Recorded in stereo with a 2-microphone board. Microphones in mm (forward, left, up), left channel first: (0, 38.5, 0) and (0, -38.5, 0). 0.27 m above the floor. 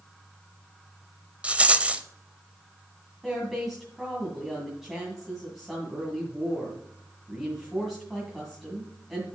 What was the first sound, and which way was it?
A rattle, 15° right (ahead or behind).